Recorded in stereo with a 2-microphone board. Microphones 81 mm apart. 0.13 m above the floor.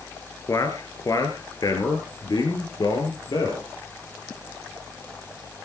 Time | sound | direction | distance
0.5 | a man speaking | 45° left (ahead or behind) | 2 m